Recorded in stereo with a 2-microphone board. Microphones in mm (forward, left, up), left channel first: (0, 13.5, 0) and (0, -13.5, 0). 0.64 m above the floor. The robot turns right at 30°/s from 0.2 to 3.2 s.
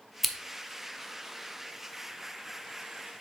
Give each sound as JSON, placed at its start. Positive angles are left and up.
{"t": 0.2, "sound": "scissors", "side_deg": -5, "distance_m": 0.8}